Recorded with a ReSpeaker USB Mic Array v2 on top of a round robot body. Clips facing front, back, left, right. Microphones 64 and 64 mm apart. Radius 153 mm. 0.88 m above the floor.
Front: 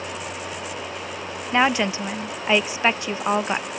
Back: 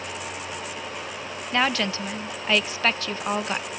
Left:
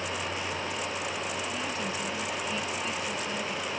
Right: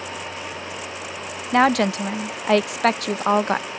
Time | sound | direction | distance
1.5 | a woman speaking | 70° right | ?